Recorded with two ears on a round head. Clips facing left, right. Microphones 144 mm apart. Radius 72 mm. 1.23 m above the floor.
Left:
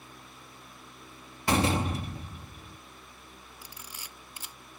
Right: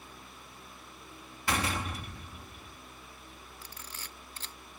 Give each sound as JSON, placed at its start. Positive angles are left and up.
{"t": 1.5, "sound": "a door slam", "side_deg": 25}
{"t": 3.6, "sound": "a camera shutter", "side_deg": 10}